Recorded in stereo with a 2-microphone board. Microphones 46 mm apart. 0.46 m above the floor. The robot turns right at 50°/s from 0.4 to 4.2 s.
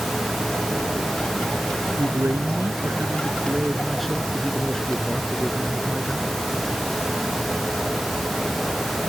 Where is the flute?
No flute in this recording.